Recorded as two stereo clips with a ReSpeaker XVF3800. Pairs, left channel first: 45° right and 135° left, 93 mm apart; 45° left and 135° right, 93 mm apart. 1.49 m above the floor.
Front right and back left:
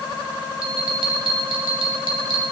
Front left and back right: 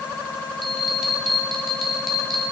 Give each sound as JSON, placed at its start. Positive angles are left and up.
{"t": 0.6, "sound": "a bell", "azimuth_deg": 135, "distance_m": 2.5}